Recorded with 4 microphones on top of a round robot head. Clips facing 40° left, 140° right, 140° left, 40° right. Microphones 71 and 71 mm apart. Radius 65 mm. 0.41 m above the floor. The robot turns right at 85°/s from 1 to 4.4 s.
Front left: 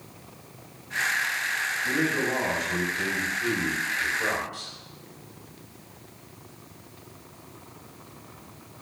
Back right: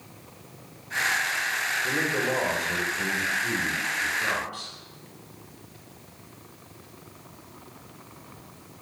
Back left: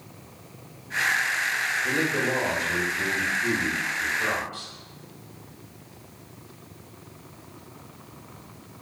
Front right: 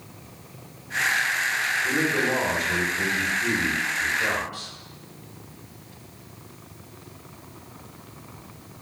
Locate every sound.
1.8 s a man speaking: 125° right, 1.9 m; by 4.7 s 95° left, 1.9 m